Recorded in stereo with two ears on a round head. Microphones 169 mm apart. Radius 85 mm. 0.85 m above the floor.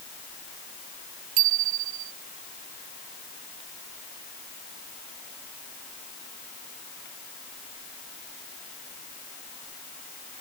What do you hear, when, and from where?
1.4 s a bicycle bell: 80° right